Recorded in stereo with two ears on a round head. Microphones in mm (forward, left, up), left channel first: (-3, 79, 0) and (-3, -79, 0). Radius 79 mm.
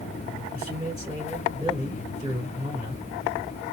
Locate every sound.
0.5 s a man speaking: 20° right (ahead or behind), 3 m